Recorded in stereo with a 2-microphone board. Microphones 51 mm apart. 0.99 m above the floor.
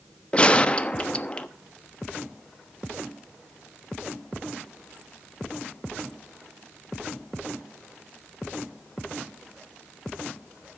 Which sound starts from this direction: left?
A gunshot, at 0.3 s.